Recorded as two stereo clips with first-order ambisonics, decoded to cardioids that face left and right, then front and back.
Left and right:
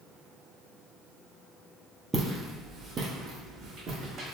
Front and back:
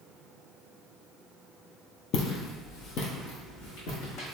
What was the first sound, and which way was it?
Footsteps, 10° right.